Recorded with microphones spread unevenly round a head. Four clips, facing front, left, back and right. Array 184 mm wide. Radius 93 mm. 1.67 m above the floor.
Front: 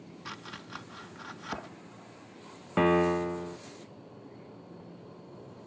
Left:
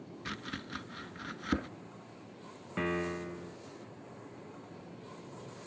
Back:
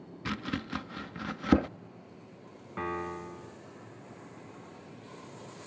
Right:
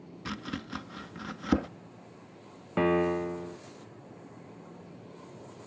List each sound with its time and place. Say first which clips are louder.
0.2 s chopping: right 5 dB, back 10 dB; 175° right
2.8 s a piano: right 9 dB, front 11 dB; 40° right